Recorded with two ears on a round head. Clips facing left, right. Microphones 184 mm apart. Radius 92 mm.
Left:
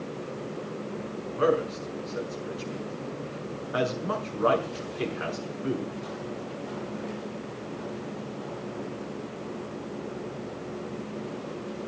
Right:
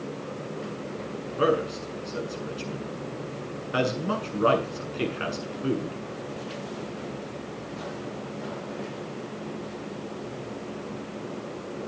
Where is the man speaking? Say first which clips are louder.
Even; 35° right (ahead or behind), 6.5 m.